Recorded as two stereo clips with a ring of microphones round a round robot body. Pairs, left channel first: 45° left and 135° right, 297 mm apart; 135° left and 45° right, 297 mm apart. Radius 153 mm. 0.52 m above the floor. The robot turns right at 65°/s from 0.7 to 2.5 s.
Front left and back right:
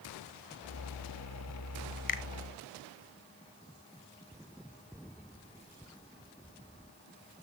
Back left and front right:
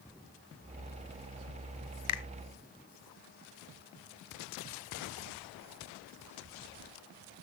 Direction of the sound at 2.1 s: 110° left.